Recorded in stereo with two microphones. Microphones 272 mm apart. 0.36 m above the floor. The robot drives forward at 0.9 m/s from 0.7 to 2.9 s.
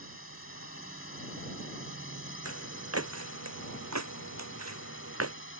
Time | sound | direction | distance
0.0 | a drone | 50° left (ahead or behind) | ?
2.5 | footsteps | 65° right (ahead or behind) | ?